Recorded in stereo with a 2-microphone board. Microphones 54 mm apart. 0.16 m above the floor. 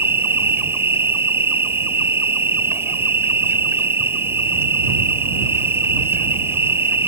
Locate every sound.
0.0 s an insect: 45° right (ahead or behind)